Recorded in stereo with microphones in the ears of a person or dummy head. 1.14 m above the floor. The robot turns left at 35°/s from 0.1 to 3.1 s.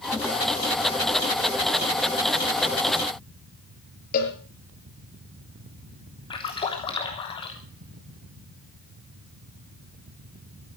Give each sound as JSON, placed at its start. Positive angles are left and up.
{"t": 4.1, "sound": "a cowbell", "side_deg": 55, "distance_m": 7.0}
{"t": 6.3, "sound": "a splash", "side_deg": 30, "distance_m": 3.0}